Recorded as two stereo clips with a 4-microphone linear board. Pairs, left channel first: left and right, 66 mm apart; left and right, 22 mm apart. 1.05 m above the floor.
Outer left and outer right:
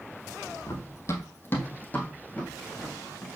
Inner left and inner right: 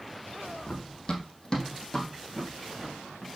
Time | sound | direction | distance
0.7 | running footsteps | 40° left (ahead or behind) | 1.4 m